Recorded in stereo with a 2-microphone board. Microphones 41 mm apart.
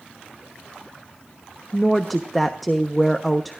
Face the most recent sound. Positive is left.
turn(degrees=0)  # may be behind; listen again after turning